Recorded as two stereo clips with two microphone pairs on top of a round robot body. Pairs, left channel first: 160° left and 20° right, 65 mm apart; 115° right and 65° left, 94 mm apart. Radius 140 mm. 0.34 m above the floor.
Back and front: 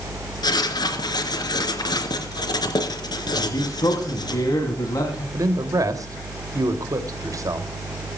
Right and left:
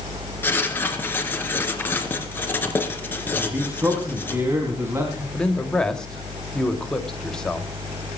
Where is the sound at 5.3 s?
40° right, 2.5 m.